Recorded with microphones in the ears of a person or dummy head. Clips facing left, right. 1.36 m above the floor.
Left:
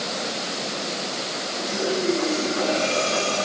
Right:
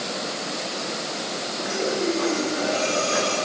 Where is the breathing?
10° right (ahead or behind), 7.5 m.